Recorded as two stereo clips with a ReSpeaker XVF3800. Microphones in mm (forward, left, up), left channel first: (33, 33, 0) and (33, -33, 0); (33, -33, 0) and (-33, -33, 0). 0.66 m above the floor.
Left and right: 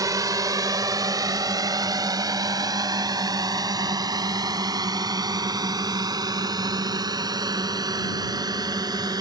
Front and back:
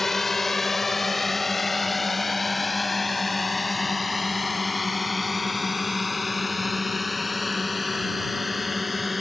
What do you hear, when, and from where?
0.0 s a drone: 85° right; by 9.2 s 90° right